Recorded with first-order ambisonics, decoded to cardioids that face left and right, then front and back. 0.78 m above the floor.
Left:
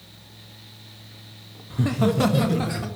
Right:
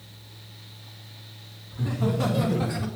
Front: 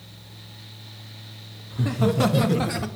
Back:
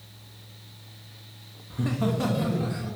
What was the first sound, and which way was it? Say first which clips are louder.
Laughter: left 6 dB, front 4 dB; 95° left.